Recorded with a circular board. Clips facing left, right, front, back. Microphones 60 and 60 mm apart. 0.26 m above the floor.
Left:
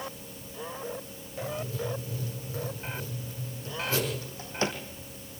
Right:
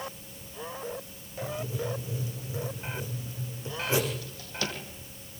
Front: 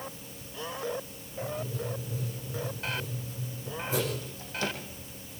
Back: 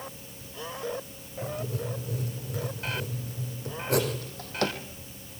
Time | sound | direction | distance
1.4 | writing | 160° right | 6.5 m
4.2 | a drawer | 150° left | 4 m